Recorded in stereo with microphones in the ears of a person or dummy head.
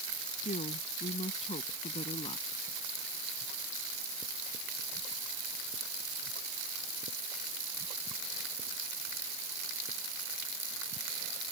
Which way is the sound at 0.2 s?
35° left (ahead or behind).